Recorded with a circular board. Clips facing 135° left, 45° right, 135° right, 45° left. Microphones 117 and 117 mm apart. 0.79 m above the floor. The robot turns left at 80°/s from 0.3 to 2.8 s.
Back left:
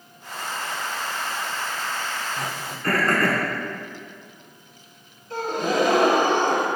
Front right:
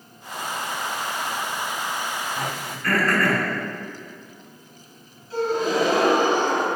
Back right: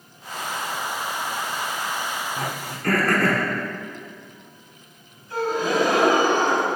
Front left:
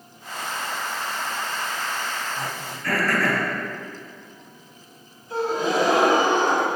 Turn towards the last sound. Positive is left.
turn(degrees=110)